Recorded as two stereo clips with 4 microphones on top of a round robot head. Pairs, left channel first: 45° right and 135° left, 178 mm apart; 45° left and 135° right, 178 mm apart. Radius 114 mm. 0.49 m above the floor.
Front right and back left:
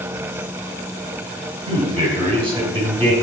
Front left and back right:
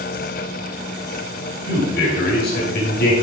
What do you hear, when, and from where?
1.7 s a man speaking: 75° left, 3.5 m